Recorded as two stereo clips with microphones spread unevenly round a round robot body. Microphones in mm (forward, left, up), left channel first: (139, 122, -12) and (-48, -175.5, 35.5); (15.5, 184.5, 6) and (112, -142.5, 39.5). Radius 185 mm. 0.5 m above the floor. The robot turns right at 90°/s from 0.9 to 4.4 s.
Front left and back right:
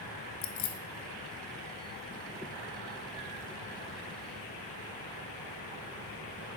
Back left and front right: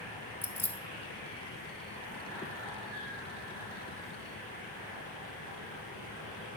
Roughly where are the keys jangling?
Ahead left.